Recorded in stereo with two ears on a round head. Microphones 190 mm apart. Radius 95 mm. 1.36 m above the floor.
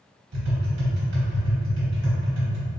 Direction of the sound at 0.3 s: 50° right (ahead or behind).